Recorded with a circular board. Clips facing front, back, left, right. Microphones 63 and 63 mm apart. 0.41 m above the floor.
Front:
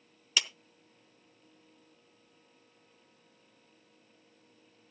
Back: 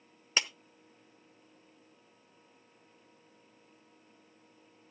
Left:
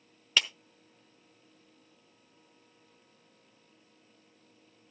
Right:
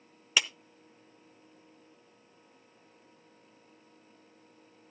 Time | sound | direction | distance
0.4 | a clap | 160° right | 0.7 m